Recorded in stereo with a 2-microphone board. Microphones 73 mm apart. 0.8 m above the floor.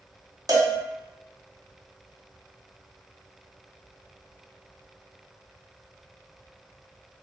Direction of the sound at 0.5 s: 60° right (ahead or behind).